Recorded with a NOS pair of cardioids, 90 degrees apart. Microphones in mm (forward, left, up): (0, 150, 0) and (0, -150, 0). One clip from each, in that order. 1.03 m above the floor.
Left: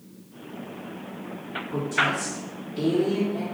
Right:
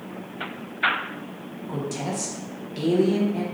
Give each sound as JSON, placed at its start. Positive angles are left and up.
{"t": 1.7, "sound": "a woman speaking", "azimuth_deg": -70, "distance_m": 1.3}